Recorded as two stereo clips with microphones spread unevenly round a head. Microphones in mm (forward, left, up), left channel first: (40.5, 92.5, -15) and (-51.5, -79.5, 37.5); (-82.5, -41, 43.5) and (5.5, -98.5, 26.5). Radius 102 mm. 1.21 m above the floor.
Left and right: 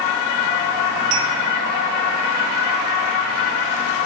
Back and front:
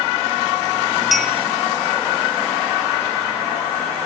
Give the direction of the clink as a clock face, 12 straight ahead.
4 o'clock.